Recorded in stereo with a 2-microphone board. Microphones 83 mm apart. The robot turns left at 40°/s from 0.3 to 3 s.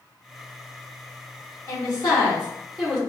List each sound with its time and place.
1.7 s a woman speaking: 50° left, 1.8 m; by 3.0 s straight ahead, 1.8 m